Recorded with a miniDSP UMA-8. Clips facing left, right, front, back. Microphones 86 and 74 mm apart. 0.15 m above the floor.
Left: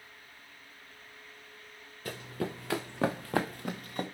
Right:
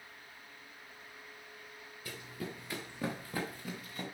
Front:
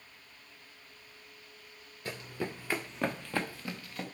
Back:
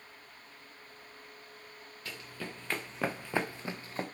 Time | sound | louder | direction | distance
2.0 | running footsteps | left 7 dB, front 6 dB | 60° left | 0.9 m